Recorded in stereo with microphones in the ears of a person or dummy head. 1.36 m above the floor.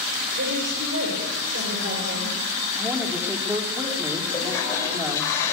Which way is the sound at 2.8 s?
10° right (ahead or behind).